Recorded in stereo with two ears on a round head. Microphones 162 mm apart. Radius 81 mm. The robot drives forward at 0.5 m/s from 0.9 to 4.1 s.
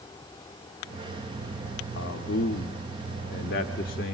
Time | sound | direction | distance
1.9 | a man speaking | 60° left (ahead or behind) | 1.2 m